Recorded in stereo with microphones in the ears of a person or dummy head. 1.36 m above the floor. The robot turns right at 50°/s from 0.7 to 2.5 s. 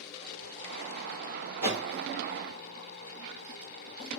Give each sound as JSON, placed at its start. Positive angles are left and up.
{"t": 1.6, "sound": "a whoosh", "side_deg": 35, "distance_m": 1.1}